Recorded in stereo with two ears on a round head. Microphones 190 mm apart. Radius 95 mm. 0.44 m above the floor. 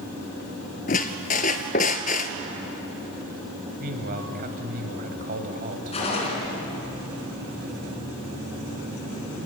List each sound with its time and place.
0.9 s a squeak: 40° left (ahead or behind), 1.1 m
3.8 s a man speaking: 45° right (ahead or behind), 2.5 m
5.9 s a gunshot: 30° left (ahead or behind), 4 m